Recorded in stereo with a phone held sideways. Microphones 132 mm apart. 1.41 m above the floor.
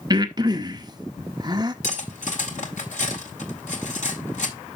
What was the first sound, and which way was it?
Breathing, 30° right (ahead or behind).